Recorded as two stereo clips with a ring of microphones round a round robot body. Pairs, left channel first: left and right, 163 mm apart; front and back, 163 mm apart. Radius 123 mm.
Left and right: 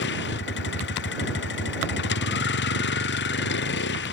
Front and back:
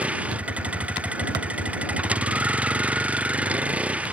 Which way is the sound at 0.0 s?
100° left.